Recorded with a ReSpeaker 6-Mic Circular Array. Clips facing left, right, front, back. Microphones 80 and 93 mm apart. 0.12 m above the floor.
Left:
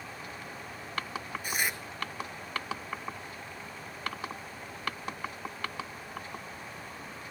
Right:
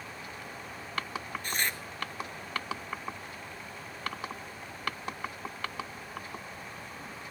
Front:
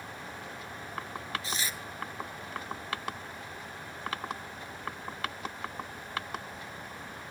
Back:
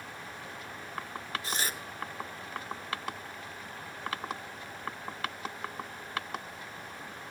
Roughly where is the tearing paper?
Behind.